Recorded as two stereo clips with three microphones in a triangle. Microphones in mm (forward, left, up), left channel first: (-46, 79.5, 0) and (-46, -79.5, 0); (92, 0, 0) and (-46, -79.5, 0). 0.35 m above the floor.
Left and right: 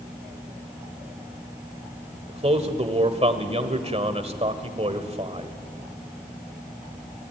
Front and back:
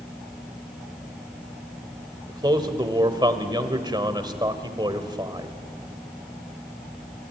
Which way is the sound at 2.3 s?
105° right.